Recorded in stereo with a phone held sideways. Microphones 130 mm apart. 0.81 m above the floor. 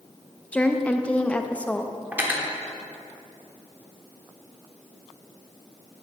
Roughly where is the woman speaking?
Centre.